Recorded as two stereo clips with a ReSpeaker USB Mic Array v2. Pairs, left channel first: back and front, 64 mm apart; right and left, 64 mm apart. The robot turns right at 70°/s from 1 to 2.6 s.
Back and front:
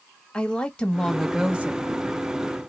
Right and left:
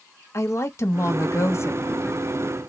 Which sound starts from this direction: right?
A woman speaking, at 0.3 s.